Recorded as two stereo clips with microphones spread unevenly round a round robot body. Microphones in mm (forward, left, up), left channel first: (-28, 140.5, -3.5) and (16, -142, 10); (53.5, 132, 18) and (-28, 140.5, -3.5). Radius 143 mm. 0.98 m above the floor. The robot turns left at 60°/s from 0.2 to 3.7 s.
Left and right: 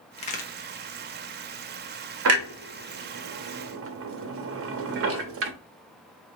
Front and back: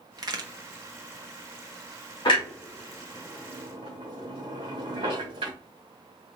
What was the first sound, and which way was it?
A crack, 165° left.